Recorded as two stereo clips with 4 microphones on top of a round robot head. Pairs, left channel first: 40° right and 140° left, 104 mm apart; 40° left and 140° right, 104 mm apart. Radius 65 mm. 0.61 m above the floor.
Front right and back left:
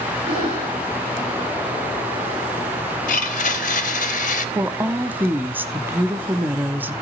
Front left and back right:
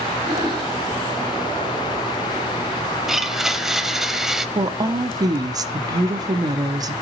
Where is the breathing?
170° left, 9.5 m.